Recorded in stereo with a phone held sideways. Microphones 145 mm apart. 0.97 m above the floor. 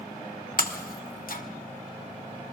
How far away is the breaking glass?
About 1.1 m.